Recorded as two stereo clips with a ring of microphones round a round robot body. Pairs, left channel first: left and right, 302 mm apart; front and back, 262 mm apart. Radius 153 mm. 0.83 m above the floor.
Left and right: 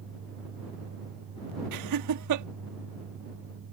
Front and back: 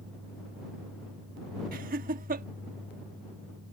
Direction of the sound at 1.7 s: 120° right.